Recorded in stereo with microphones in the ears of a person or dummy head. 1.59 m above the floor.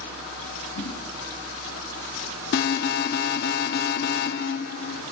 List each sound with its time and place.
0.8 s a whoosh: 75° left (ahead or behind), 7 m
2.5 s an alarm: 45° left (ahead or behind), 1.0 m